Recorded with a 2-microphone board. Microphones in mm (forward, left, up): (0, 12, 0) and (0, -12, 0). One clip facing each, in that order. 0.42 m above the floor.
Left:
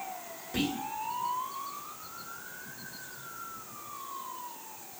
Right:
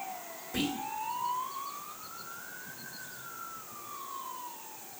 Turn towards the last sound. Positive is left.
turn(degrees=35)  # may be behind; listen again after turning